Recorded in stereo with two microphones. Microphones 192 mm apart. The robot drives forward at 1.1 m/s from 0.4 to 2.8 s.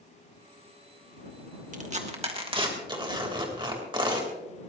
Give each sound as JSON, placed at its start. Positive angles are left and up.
{"t": 1.7, "sound": "tearing paper", "side_deg": -40, "distance_m": 1.7}